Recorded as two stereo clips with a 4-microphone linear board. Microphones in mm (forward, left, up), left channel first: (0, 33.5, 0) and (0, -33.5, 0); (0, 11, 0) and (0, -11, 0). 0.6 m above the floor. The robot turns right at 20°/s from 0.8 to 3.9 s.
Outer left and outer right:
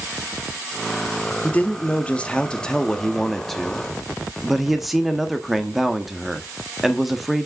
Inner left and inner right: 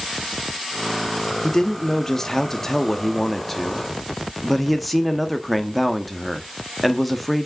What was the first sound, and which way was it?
A man speaking, 135° left.